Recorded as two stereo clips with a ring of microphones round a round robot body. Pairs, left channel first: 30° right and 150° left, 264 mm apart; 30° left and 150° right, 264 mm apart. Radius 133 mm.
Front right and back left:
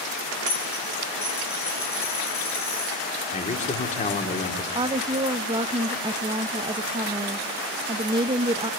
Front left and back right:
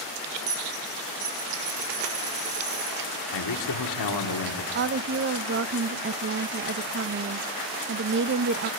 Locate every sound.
0.5 s a dropped coin: 110° right, 7.5 m
3.3 s a man speaking: 35° left, 1.9 m
4.8 s a woman speaking: 145° right, 0.7 m